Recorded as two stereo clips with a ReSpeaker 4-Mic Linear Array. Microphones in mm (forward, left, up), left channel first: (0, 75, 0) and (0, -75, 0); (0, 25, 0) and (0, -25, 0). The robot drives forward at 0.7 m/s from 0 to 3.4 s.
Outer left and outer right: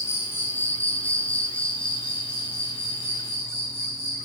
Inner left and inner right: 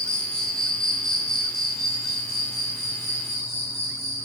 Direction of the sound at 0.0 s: 20° left (ahead or behind).